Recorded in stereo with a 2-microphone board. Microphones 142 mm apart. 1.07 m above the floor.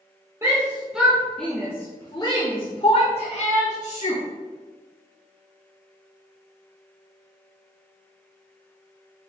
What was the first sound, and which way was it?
A shout, 20° right (ahead or behind).